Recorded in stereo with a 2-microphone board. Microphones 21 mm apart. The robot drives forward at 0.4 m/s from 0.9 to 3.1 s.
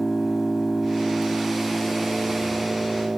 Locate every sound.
0.0 s an engine running: 25° right (ahead or behind), 1.4 m; by 3.2 s 40° right (ahead or behind), 0.9 m